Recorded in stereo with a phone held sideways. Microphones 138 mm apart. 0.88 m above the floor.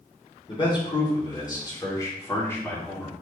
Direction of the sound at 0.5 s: 35° left (ahead or behind).